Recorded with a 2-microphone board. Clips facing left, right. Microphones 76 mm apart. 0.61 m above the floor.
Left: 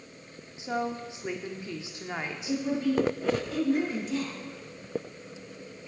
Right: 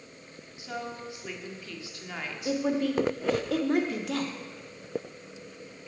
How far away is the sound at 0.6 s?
About 1.3 m.